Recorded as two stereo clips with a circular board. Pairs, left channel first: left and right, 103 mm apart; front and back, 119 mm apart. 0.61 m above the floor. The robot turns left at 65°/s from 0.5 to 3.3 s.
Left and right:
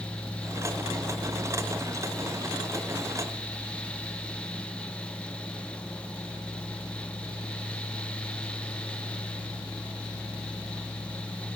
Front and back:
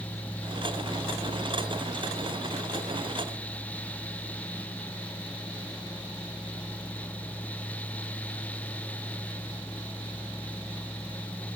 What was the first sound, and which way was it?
Only background noise.